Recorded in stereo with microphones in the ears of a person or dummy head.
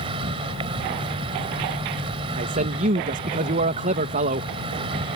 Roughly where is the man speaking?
Right.